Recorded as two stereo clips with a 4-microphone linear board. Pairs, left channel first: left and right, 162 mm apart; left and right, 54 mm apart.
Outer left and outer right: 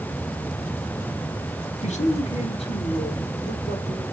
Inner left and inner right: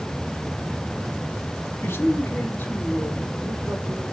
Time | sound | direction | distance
1.8 | a man speaking | 45° left (ahead or behind) | 1.7 m